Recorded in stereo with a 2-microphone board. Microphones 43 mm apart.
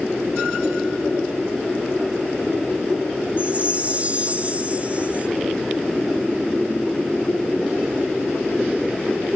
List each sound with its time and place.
3.4 s a chime: 35° right (ahead or behind), 1.5 m